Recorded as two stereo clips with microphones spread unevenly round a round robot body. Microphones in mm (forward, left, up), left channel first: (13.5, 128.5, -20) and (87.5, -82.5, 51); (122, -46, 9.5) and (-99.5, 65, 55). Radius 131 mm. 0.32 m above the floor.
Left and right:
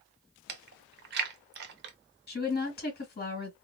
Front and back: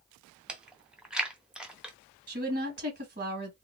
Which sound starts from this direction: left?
A woman speaking, at 2.3 s.